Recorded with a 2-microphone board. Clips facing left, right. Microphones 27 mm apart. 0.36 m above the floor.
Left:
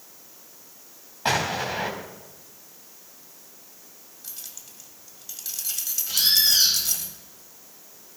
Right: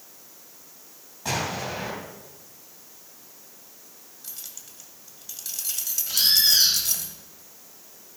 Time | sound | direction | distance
1.2 | an explosion | 45° left (ahead or behind) | 2.5 m
4.2 | keys jangling | centre (ahead or behind) | 1.5 m
6.1 | a bird | centre (ahead or behind) | 3 m